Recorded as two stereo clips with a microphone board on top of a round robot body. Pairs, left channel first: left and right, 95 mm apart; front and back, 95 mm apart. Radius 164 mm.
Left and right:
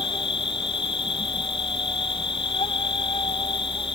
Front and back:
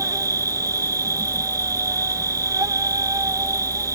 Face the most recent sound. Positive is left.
turn(degrees=125)